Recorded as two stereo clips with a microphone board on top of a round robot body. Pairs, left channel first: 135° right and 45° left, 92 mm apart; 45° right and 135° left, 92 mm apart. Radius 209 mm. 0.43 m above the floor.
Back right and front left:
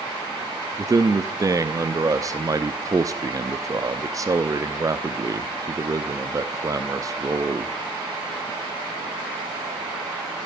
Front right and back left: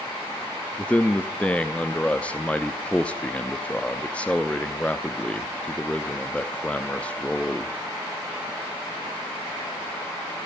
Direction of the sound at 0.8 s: 25° left.